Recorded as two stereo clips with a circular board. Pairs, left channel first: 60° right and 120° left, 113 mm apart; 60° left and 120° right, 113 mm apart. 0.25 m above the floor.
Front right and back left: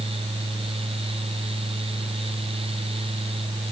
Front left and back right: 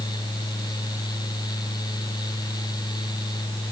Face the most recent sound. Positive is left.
No sound to turn to.